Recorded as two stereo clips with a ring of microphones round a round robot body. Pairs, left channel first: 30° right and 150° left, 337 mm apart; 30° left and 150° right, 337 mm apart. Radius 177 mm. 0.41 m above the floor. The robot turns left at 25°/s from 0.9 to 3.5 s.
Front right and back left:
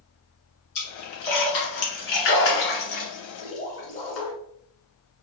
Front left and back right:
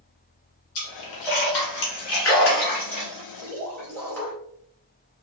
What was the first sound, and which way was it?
A splash, 10° left.